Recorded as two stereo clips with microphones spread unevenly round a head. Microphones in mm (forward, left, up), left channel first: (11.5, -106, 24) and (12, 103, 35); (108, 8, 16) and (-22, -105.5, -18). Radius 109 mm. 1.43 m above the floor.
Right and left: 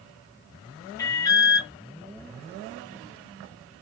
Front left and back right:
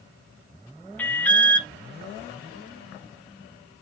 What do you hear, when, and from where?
1.0 s an alarm: 20° right, 0.7 m